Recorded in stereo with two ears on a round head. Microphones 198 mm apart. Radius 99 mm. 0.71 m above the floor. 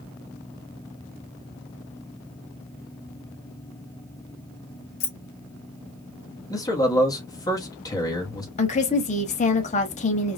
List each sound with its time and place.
5.0 s keys jangling: 65° left (ahead or behind), 1.1 m
6.5 s a man speaking: 15° left (ahead or behind), 1.0 m
8.6 s a woman speaking: 35° left (ahead or behind), 0.9 m